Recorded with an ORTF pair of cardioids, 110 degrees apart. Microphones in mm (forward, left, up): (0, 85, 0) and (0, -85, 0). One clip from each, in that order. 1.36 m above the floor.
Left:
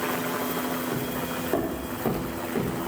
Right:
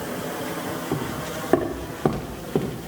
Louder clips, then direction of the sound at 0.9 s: Right 1 dB; 50° right.